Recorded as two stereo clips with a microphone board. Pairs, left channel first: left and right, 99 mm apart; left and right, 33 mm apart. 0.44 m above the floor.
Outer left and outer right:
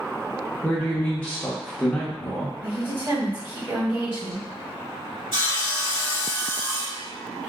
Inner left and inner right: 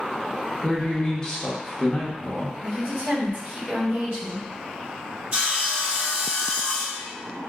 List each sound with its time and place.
0.6 s a man speaking: 20° left (ahead or behind), 0.7 m
2.6 s a woman speaking: 50° right (ahead or behind), 1.8 m
5.3 s sawing: 45° right (ahead or behind), 2.0 m